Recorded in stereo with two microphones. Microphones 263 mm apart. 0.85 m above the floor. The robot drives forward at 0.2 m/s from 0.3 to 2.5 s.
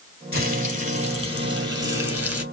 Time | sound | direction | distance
0.3 | frying | 60° left (ahead or behind) | 1.8 m